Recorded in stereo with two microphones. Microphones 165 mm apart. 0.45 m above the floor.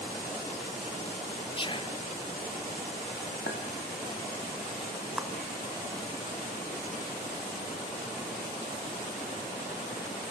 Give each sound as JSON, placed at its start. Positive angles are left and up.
{"t": 1.6, "sound": "whispering", "side_deg": 30, "distance_m": 0.9}
{"t": 3.5, "sound": "a clink", "side_deg": 75, "distance_m": 2.5}
{"t": 5.2, "sound": "a clap", "side_deg": -5, "distance_m": 1.3}